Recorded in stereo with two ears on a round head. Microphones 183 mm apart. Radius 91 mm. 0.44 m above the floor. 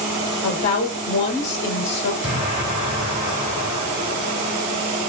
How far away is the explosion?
About 1.5 m.